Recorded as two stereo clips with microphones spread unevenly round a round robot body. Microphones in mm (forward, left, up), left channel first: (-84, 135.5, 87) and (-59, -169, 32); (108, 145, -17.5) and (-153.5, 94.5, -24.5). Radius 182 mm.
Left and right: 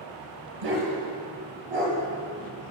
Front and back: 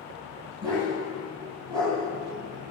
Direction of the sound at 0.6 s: 85° right.